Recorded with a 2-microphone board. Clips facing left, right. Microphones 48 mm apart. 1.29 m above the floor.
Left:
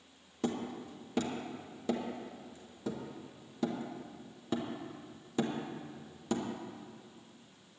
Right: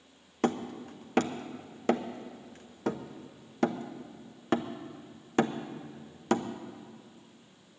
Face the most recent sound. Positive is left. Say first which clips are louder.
# right 6 dB
turn(degrees=-60)  # may be behind; listen again after turning